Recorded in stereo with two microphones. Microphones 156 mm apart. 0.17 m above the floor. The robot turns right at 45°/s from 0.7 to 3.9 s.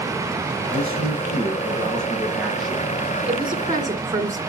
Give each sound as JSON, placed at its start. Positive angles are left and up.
{"t": 0.7, "sound": "a man speaking", "azimuth_deg": -85, "distance_m": 3.5}
{"t": 3.3, "sound": "a woman speaking", "side_deg": -40, "distance_m": 2.0}